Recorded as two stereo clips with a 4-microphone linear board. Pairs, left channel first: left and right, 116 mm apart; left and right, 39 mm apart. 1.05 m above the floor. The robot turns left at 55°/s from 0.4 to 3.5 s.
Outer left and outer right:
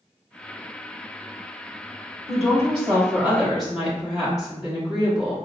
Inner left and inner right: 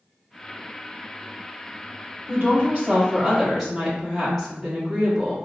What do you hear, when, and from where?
2.3 s a woman speaking: 110° right, 1.5 m; by 5.3 s straight behind, 1.5 m